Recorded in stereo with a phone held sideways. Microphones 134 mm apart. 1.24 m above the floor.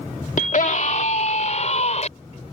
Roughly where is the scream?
Left.